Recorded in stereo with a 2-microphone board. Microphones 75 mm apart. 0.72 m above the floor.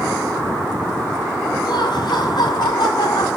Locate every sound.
1.6 s laughter: 70° left (ahead or behind), 5.5 m; by 3.3 s 75° left (ahead or behind), 7 m